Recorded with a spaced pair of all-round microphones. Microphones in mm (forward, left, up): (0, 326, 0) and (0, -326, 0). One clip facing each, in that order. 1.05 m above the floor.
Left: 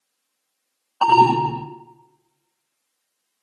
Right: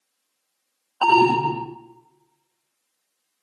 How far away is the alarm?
About 0.7 m.